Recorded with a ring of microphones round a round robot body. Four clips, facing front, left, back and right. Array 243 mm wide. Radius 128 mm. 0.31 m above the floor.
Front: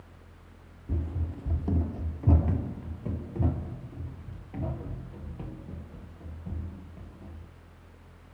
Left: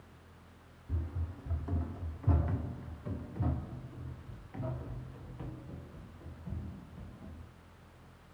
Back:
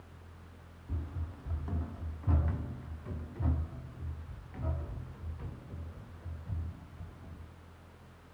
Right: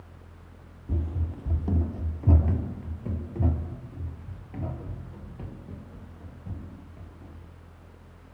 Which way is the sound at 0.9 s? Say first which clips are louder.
Right 9 dB, front 8 dB; 55° right.